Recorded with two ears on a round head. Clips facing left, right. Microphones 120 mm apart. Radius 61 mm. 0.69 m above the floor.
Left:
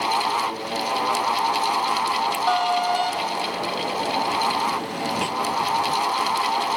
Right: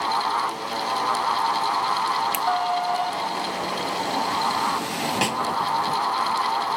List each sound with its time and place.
2.3 s a finger snap: 50° right (ahead or behind)
5.2 s a snare drum: 70° right (ahead or behind)